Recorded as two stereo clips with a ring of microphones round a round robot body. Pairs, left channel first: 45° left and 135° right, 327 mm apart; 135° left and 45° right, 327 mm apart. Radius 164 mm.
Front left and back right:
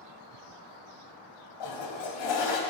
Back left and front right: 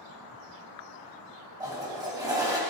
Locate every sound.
1.6 s a toilet flushing: 35° left, 2.0 m